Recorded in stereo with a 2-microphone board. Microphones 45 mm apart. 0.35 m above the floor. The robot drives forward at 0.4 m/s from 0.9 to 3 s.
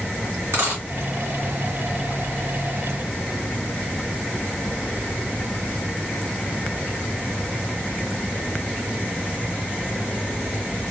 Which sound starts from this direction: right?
A dropped coin, at 0.5 s.